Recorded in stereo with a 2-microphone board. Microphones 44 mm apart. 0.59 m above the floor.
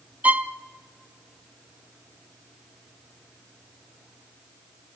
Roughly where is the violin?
Right.